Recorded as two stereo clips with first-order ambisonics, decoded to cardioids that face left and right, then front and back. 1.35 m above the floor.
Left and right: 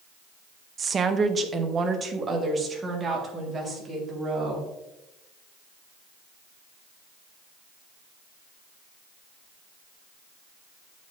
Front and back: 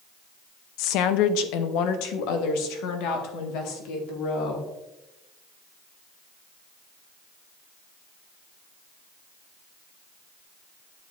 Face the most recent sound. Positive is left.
turn(degrees=-15)